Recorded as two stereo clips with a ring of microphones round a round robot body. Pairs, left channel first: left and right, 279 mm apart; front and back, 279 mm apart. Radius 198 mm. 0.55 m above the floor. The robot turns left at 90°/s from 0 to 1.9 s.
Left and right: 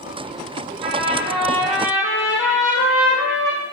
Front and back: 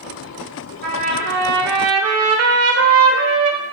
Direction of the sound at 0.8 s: 115° right.